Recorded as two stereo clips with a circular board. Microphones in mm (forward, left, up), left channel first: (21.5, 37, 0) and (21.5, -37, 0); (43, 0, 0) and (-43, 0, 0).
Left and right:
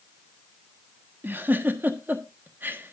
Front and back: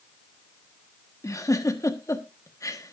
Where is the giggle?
35° right, 1.3 m.